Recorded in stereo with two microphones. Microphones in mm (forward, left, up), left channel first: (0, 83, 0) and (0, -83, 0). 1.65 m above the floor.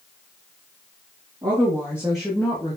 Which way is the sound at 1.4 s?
25° right (ahead or behind).